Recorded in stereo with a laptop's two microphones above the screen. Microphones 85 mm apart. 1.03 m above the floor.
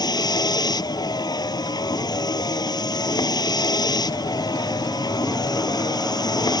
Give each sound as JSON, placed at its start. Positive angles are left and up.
{"t": 0.0, "sound": "a vehicle", "side_deg": 55}